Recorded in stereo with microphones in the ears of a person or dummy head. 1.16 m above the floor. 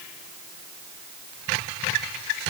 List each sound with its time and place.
Only background noise.